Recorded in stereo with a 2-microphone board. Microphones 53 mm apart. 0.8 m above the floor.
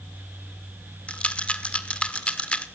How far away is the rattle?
About 1.5 m.